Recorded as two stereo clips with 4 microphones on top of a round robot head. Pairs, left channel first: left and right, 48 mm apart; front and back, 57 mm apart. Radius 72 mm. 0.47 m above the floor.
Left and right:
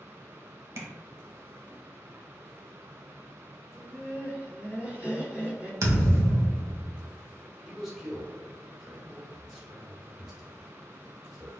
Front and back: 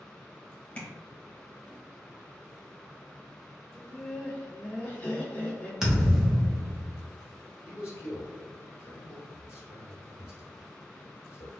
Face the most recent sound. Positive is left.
turn(degrees=-10)